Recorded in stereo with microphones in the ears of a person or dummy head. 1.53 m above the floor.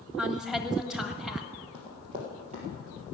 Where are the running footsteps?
20° right (ahead or behind), 2.5 m; by 3.1 s 40° right (ahead or behind), 3 m.